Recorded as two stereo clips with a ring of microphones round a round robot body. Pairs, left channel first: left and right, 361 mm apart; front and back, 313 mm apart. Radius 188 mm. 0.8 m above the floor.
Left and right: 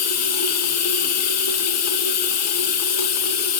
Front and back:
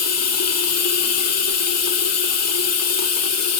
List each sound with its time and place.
0.0 s running water: 40° left, 1.5 m